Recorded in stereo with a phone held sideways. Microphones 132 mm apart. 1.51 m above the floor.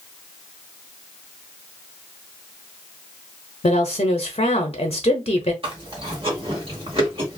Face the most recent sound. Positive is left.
turn(degrees=-45)  # may be behind; listen again after turning